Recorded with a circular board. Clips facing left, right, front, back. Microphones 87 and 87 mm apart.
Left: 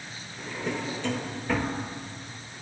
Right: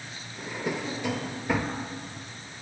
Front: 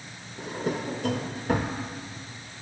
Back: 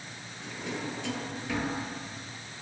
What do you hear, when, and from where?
0.4 s a drawer: 15° right, 0.7 m